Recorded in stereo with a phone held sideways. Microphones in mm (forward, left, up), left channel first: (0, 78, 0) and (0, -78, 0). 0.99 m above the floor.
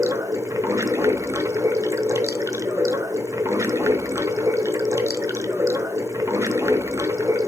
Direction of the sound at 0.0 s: 20° right (ahead or behind).